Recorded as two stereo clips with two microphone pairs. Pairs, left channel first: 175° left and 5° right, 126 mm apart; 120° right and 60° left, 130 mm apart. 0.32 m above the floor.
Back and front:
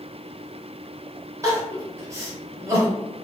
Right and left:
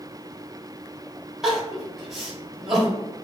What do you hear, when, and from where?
1.4 s crying: 15° right, 1.2 m